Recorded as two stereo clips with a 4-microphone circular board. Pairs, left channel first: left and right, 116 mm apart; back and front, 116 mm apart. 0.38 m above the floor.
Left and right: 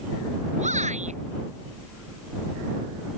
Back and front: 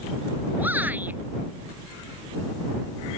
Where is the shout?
75° right.